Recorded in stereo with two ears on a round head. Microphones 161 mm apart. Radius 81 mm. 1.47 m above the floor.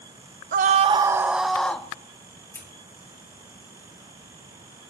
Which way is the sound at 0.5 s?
50° right (ahead or behind).